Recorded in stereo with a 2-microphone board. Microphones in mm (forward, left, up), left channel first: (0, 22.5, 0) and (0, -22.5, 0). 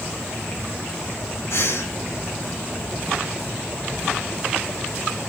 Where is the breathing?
75° left (ahead or behind), 4 m.